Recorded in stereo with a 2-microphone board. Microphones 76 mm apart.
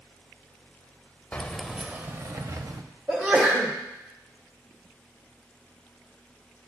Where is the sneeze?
20° right (ahead or behind), 1.1 m.